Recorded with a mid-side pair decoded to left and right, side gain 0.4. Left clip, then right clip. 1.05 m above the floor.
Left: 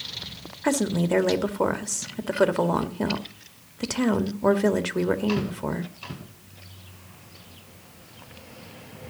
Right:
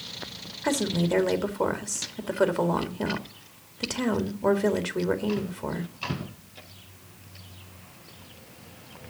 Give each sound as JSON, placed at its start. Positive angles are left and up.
{"t": 0.6, "sound": "a woman speaking", "azimuth_deg": 25, "distance_m": 1.7}